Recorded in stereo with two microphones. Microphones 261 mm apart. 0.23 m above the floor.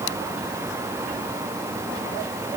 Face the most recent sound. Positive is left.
No sound to turn to.